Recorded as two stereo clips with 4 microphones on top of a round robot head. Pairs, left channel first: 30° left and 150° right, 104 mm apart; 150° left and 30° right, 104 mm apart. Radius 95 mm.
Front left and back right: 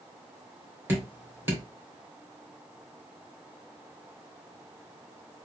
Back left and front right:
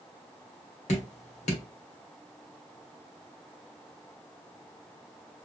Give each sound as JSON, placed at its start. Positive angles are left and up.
{"t": 0.9, "sound": "dripping", "azimuth_deg": 140, "distance_m": 2.0}